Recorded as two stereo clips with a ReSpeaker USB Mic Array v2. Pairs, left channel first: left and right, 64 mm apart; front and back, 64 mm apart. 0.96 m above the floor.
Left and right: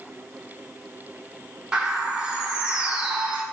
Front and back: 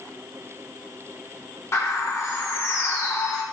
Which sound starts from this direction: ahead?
A bird, at 1.7 s.